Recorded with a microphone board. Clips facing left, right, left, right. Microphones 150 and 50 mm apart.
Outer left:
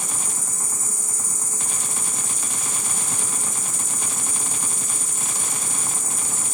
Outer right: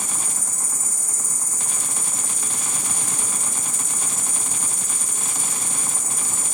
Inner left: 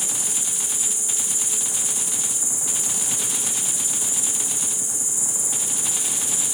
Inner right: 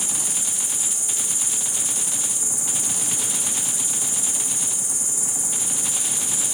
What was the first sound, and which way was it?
An insect, 55° right (ahead or behind).